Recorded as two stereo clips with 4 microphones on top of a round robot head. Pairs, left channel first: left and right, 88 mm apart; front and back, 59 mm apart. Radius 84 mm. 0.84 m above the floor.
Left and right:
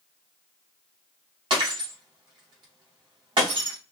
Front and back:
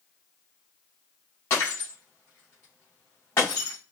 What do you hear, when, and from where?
1.5 s breaking glass: 55° right, 2.5 m